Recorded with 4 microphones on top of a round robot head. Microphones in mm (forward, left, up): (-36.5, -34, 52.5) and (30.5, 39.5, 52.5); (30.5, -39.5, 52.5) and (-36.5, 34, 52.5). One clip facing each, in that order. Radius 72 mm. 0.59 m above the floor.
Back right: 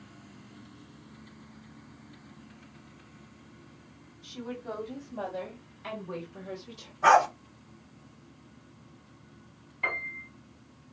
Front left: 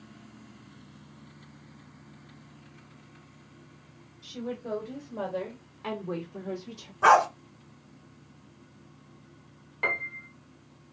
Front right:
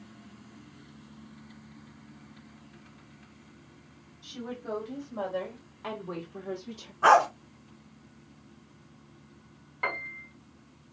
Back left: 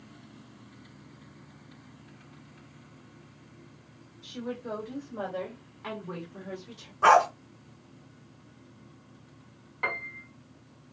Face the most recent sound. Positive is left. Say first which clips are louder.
# front left 2 dB, even
turn(degrees=40)